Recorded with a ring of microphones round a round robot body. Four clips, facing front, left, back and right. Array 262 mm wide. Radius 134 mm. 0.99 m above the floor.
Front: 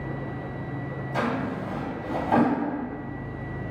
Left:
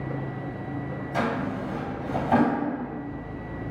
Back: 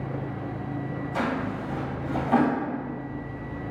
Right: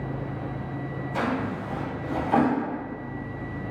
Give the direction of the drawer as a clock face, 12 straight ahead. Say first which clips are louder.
Even, front 1 dB; 10 o'clock.